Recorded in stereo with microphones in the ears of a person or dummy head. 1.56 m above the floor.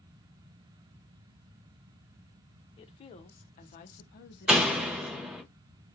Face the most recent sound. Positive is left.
turn(degrees=-5)  # may be behind; listen again after turning